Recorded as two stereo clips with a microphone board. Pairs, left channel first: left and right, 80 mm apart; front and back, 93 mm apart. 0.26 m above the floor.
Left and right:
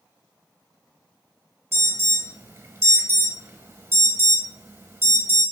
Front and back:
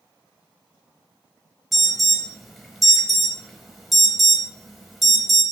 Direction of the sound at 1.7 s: 90° right.